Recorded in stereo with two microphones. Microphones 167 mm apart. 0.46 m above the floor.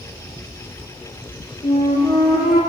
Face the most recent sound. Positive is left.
turn(degrees=50)  # may be behind; listen again after turning